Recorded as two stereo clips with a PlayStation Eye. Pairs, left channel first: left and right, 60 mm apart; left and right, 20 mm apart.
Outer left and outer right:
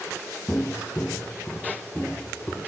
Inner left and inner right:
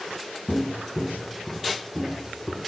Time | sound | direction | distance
0.5 | footsteps | 40° left (ahead or behind) | 1.2 m